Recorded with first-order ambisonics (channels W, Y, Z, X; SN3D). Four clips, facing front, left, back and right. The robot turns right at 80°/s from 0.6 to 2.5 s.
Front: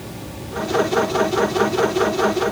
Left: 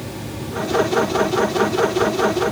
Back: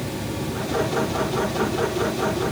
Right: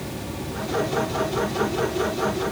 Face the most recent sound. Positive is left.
No sound to turn to.